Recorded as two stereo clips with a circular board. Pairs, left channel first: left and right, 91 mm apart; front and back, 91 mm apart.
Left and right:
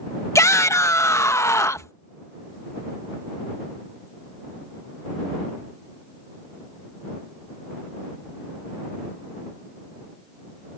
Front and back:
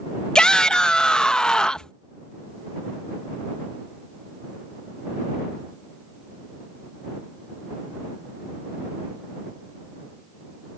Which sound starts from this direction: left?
A shout, at 0.3 s.